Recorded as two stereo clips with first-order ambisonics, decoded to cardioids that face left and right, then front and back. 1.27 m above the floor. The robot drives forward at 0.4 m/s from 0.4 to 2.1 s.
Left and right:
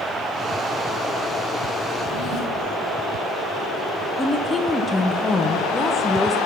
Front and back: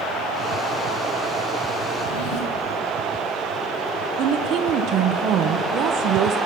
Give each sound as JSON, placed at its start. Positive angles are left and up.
{"t": 1.9, "sound": "a drawer", "azimuth_deg": 15, "distance_m": 3.5}
{"t": 4.2, "sound": "a woman speaking", "azimuth_deg": 165, "distance_m": 0.6}